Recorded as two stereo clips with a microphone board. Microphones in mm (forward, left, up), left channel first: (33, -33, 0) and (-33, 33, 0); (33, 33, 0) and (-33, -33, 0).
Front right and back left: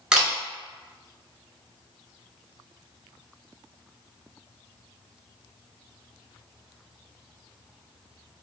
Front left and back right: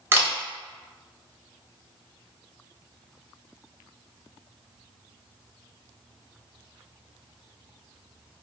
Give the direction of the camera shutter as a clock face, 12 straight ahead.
5 o'clock.